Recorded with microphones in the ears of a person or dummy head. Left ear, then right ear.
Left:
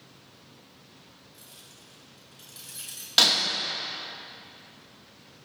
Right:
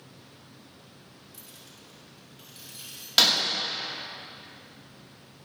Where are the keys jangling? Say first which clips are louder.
Right 1 dB; 40° right (ahead or behind), 2 m; by 3.1 s 25° left (ahead or behind), 2.5 m.